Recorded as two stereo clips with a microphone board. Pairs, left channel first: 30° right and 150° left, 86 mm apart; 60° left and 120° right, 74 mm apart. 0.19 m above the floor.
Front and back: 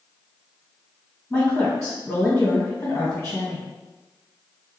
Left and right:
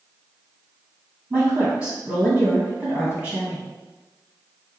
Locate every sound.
1.3 s a woman speaking: 60° right, 1.9 m